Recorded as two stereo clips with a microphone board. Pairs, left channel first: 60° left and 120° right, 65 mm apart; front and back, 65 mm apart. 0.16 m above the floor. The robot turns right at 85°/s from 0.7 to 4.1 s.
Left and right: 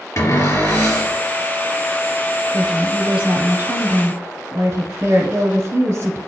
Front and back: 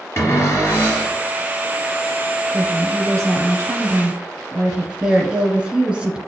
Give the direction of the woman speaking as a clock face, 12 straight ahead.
8 o'clock.